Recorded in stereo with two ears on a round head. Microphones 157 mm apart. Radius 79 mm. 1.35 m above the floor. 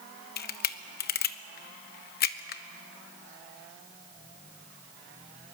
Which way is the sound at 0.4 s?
60° left (ahead or behind).